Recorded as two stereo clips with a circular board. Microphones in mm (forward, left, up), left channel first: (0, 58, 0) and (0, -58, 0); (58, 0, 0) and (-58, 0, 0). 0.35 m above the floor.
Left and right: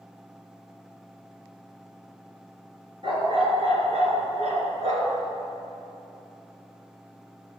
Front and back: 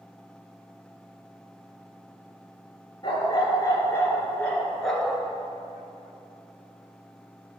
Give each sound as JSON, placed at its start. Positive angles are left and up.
{"t": 3.0, "sound": "a dog barking", "azimuth_deg": -50, "distance_m": 2.5}